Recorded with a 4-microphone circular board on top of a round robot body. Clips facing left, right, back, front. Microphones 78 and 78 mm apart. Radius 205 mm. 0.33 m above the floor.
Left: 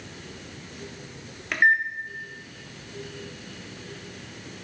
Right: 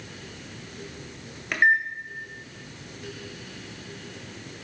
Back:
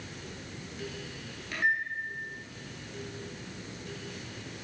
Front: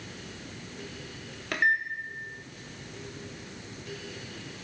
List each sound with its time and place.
1.5 s a microwave: straight ahead, 1.7 m